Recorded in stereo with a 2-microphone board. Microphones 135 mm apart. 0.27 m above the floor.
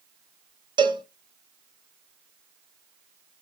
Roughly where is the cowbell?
Right.